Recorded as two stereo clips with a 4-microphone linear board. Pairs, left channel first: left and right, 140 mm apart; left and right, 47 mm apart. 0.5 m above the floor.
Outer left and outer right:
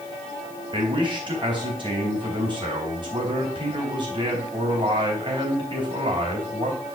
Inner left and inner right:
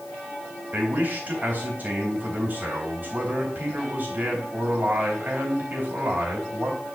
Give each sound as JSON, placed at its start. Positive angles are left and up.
{"t": 0.7, "sound": "a man speaking", "side_deg": -35, "distance_m": 3.5}